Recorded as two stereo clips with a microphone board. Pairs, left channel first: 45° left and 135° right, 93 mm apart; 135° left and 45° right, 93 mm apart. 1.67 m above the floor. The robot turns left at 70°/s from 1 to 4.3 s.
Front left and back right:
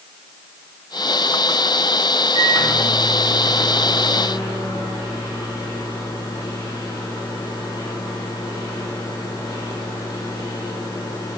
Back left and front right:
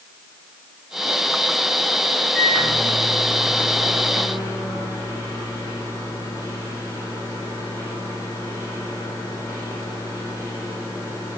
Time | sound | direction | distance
2.3 | a microwave | 135° right | 3 m